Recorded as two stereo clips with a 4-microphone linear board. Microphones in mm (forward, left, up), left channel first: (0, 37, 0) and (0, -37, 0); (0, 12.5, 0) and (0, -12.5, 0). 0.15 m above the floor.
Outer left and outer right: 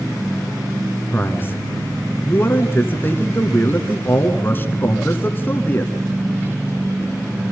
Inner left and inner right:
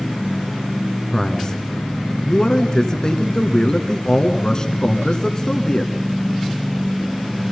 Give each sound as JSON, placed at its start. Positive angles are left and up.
{"t": 1.1, "sound": "a man speaking", "side_deg": 30, "distance_m": 1.9}